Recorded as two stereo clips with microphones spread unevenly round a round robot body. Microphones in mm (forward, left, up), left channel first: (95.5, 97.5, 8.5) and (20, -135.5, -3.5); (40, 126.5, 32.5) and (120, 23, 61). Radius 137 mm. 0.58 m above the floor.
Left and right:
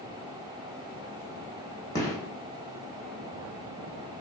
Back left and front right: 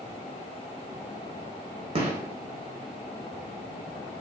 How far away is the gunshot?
About 1.1 m.